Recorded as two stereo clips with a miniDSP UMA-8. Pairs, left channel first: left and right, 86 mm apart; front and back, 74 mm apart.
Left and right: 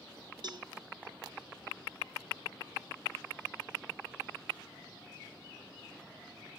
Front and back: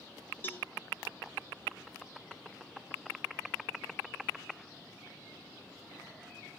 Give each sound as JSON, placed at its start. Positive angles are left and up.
{"t": 0.4, "sound": "a cowbell", "azimuth_deg": -60, "distance_m": 0.9}